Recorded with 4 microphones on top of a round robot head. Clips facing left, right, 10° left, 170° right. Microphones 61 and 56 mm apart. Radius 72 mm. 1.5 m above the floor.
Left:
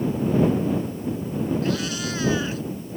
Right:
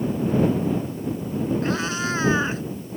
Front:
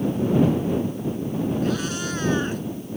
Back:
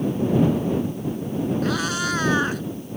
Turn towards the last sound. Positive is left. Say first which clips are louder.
# right 1 dB, back 2 dB
turn(degrees=-155)